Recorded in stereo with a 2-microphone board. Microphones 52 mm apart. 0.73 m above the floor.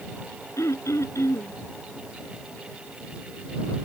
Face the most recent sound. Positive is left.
turn(degrees=80)